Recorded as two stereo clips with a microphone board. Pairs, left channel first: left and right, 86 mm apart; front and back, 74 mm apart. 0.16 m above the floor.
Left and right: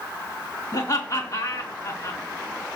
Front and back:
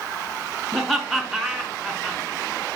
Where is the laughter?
90° left, 1.4 m.